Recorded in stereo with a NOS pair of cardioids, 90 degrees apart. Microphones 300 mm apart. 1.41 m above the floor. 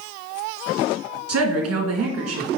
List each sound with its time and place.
1.3 s a woman speaking: 60° right, 2.5 m